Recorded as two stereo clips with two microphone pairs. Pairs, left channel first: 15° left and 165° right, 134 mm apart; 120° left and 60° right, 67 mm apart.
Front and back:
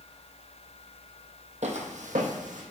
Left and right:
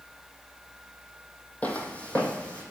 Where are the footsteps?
175° right, 0.8 m; by 2.6 s 170° right, 1.3 m.